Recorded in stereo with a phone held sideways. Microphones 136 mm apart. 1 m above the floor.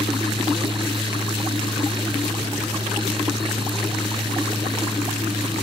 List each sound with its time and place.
0.0 s a fan: 40° right (ahead or behind)